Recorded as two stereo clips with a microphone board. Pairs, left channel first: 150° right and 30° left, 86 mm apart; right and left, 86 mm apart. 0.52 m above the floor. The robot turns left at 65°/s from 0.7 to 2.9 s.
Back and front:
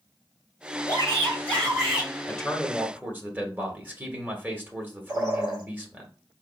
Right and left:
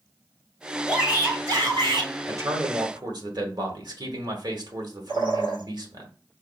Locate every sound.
0.9 s a shout: straight behind, 2.5 m; by 2.1 s 95° left, 2.5 m
2.3 s a man speaking: 135° left, 1.1 m; by 6.1 s 95° left, 1.1 m
5.1 s a bird: 75° left, 2.5 m